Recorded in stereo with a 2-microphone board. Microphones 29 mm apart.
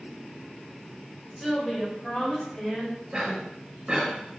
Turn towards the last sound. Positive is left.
turn(degrees=-30)  # may be behind; listen again after turning